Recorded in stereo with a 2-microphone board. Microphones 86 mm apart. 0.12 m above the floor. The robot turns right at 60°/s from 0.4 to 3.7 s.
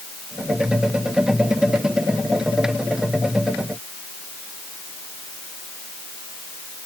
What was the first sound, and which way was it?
Only background noise.